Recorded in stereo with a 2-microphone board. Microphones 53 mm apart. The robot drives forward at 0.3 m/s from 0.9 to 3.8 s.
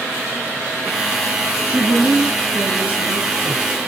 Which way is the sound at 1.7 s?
35° right (ahead or behind).